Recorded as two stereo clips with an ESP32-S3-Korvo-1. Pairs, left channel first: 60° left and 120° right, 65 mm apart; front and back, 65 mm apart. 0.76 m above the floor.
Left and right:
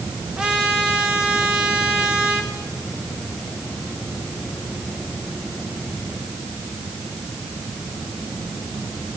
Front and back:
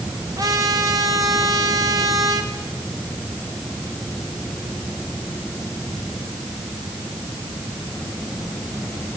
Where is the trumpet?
160° left, 2.5 m.